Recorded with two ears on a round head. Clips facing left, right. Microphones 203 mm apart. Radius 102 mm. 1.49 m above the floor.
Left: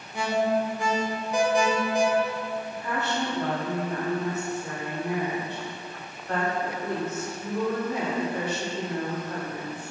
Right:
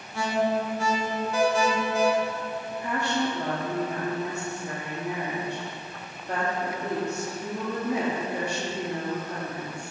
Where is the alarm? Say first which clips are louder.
Left 1 dB; 15° left (ahead or behind), 0.5 m.